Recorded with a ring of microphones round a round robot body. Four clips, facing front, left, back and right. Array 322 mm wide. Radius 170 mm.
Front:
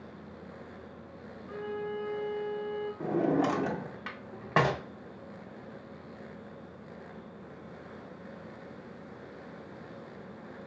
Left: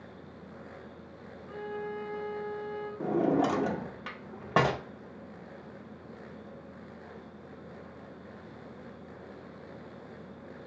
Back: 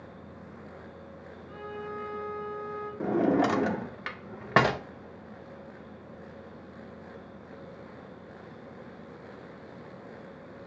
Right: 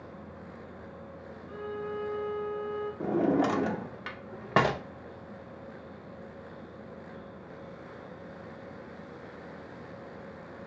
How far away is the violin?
About 3 m.